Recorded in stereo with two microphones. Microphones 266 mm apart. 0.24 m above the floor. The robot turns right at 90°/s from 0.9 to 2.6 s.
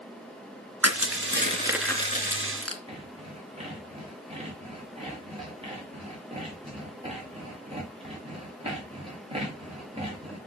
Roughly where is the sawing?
Right.